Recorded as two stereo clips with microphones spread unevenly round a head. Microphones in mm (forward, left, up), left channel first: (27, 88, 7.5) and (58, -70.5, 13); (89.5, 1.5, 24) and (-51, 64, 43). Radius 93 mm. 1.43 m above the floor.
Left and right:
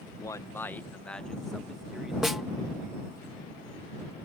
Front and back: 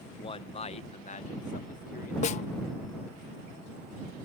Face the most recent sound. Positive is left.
turn(degrees=5)